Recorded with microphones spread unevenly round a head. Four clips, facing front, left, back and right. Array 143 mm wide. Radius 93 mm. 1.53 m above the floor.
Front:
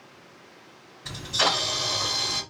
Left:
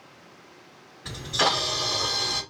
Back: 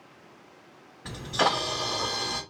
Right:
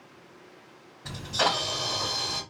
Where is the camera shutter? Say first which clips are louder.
Left 2 dB, back 1 dB; 160° right, 1.7 m.